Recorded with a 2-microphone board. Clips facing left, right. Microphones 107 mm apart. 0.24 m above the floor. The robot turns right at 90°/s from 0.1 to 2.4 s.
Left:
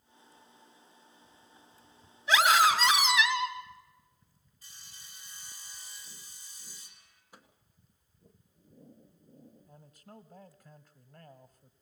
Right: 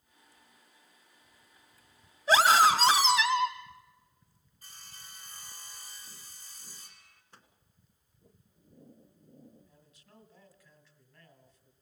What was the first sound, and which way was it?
A scream, 40° right (ahead or behind).